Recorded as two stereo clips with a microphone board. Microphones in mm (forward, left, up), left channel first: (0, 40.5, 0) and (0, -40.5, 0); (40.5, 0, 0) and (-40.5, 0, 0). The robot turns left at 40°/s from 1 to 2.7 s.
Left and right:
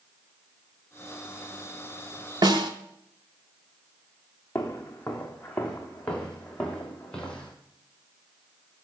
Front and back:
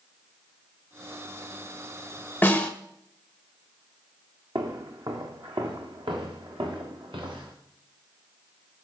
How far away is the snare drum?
About 1.2 m.